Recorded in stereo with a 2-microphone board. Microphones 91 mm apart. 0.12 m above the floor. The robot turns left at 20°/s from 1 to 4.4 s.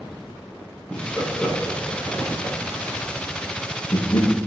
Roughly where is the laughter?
Centre.